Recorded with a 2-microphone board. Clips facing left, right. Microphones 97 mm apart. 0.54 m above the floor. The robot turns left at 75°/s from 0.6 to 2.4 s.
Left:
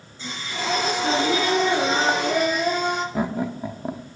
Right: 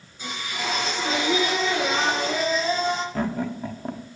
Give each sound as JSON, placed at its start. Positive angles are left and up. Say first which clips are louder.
{"t": 0.2, "sound": "singing", "louder": "left 1 dB", "azimuth_deg": -165, "distance_m": 4.0}
{"t": 3.1, "sound": "laughter", "louder": "left 1 dB", "side_deg": 10, "distance_m": 0.6}